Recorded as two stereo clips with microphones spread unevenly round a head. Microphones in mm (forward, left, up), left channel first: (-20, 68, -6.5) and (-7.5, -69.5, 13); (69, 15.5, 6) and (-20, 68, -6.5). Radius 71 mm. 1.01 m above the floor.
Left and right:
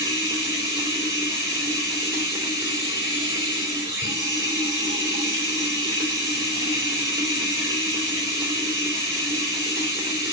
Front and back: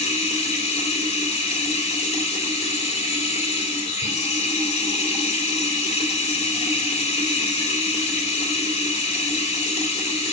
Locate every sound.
0.0 s running water: 15° right, 3 m